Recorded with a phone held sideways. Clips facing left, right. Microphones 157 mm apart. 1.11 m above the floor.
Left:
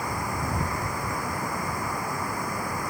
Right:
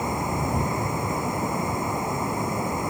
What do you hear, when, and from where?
0.0 s running water: 20° right (ahead or behind)